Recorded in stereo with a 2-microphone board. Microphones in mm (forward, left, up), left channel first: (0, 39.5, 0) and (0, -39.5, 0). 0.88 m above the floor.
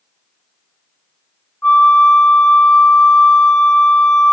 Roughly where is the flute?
Left.